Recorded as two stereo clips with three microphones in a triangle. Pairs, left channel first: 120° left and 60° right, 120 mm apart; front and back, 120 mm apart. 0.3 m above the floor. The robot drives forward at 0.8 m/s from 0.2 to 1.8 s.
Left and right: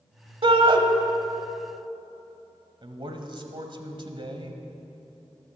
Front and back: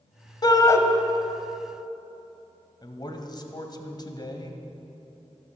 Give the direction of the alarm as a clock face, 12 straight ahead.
No alarm in this recording.